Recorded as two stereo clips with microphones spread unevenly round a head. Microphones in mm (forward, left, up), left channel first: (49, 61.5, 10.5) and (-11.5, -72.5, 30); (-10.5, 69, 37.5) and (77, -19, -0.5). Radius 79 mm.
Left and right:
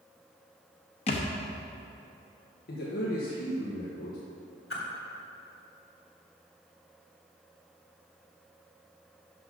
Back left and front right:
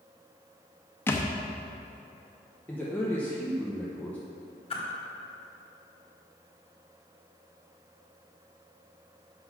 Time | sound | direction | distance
1.1 | a thud | 105° left | 0.7 m
2.7 | a man speaking | 50° left | 1.0 m
4.7 | a whoosh | 90° left | 1.6 m